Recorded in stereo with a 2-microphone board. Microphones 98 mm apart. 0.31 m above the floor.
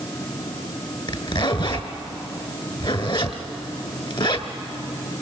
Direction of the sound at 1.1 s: 55° left (ahead or behind).